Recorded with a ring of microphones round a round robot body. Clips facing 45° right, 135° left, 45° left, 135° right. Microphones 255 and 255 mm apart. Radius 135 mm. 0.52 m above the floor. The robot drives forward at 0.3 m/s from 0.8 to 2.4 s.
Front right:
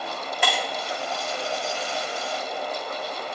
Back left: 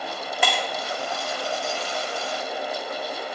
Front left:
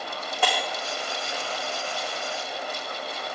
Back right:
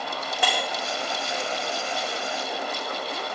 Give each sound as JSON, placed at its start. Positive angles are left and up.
{"t": 0.4, "sound": "breaking glass", "azimuth_deg": 150, "distance_m": 5.0}